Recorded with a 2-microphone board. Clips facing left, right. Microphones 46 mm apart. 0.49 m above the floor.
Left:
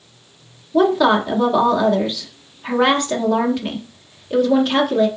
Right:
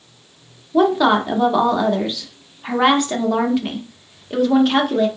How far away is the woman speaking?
About 0.8 m.